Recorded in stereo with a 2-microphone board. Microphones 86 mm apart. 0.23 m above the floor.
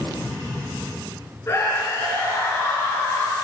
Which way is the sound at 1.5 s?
30° left (ahead or behind).